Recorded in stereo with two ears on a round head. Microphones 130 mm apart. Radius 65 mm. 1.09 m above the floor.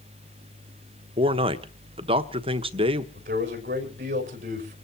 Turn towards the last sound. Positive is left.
turn(degrees=-55)  # may be behind; listen again after turning